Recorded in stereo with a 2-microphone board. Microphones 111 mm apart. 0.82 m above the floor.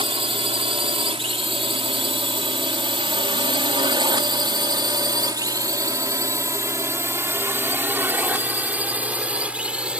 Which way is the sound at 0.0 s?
60° right (ahead or behind).